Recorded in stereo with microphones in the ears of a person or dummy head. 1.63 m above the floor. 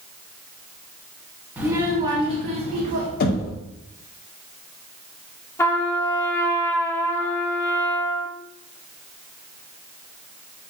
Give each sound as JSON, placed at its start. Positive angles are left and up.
{"t": 1.6, "sound": "a child speaking", "side_deg": -15, "distance_m": 0.9}
{"t": 3.2, "sound": "knocking", "side_deg": 60, "distance_m": 0.7}
{"t": 5.6, "sound": "a trumpet", "side_deg": 20, "distance_m": 0.5}